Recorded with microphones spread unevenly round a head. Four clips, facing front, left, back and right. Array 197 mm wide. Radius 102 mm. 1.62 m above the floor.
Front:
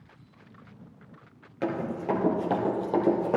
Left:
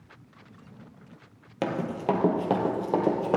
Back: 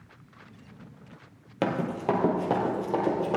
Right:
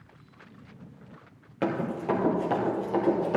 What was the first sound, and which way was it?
Running footsteps, 150° left.